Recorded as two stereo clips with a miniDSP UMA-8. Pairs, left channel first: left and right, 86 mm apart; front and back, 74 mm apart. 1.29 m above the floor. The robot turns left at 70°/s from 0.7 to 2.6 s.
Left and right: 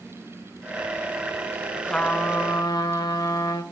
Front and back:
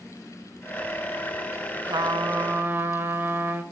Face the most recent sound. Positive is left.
turn(degrees=120)